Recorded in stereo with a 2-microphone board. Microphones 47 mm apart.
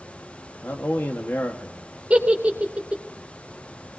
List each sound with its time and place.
0.6 s a man speaking: 50° left (ahead or behind), 1.4 m
2.1 s a giggle: 30° right (ahead or behind), 2.5 m